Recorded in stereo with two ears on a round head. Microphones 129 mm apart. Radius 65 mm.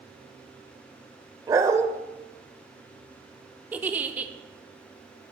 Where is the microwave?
I don't hear a microwave.